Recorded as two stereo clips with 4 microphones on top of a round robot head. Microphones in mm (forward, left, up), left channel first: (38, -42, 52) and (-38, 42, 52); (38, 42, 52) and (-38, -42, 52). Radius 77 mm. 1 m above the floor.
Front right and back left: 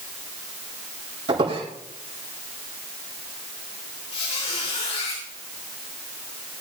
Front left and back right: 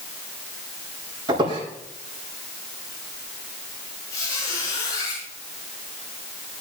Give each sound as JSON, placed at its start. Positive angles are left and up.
{"t": 1.3, "sound": "a squeak", "azimuth_deg": 175, "distance_m": 8.5}
{"t": 4.1, "sound": "a squeak", "azimuth_deg": -15, "distance_m": 8.5}